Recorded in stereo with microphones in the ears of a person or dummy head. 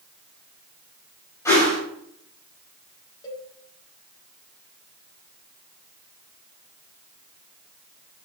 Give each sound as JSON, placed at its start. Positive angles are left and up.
{"t": 1.4, "sound": "a whoosh", "side_deg": 15, "distance_m": 4.0}
{"t": 3.2, "sound": "a cowbell", "side_deg": 25, "distance_m": 1.6}